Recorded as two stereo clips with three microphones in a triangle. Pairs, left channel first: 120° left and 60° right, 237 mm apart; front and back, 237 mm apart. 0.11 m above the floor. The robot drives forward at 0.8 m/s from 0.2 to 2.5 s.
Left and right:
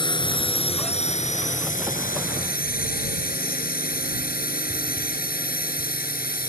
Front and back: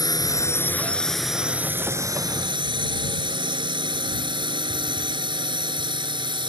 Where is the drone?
65° left; by 6.5 s 120° left.